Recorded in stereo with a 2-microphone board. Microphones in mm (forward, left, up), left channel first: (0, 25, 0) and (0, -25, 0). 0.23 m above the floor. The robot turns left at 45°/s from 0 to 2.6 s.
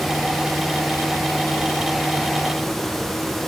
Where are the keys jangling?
No keys jangling in this recording.